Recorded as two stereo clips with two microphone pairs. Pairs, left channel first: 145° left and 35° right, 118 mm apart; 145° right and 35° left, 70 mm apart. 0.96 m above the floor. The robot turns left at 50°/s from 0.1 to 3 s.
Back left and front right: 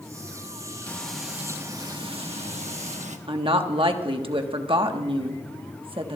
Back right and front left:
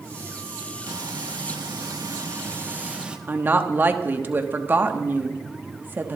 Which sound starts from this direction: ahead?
A woman speaking, at 3.3 s.